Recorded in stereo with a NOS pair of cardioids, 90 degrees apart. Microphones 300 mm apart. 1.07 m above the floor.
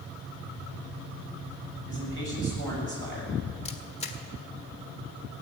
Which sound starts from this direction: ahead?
A camera shutter, at 3.6 s.